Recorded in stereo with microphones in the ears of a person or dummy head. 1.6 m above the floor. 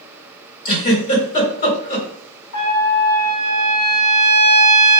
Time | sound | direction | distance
0.7 | a giggle | 35° left (ahead or behind) | 1.9 m
2.5 | a trumpet | 65° left (ahead or behind) | 1.4 m